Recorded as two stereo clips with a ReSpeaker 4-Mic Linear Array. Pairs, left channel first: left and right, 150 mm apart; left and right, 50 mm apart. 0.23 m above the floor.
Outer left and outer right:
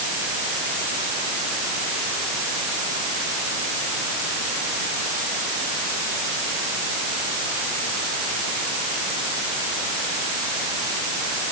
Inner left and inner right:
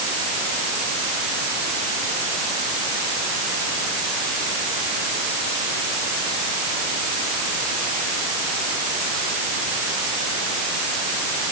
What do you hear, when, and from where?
Only background noise.